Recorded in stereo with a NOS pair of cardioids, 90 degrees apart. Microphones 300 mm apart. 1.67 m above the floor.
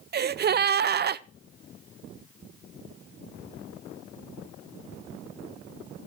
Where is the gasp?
35° right, 0.5 m.